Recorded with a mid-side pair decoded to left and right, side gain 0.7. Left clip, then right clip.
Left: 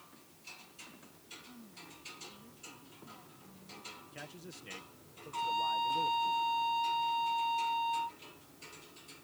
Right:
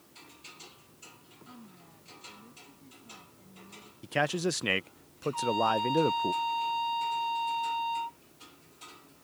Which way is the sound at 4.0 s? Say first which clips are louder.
Right 20 dB; 65° right.